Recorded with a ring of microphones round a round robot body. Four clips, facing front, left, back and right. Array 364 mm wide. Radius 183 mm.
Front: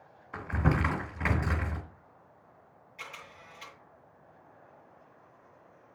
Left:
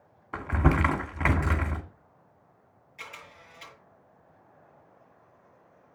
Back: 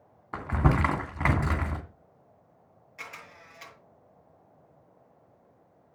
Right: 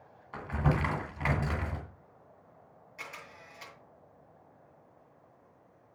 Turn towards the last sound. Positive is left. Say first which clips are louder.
# left 1 dB, back 1 dB
turn(degrees=-160)